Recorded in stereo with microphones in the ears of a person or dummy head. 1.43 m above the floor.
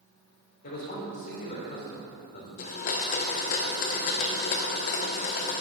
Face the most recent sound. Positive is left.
turn(degrees=40)  # may be behind; listen again after turning